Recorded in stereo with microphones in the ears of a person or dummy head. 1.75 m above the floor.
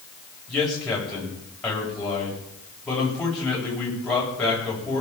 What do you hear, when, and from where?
0.5 s a man speaking: 5° left (ahead or behind), 9.5 m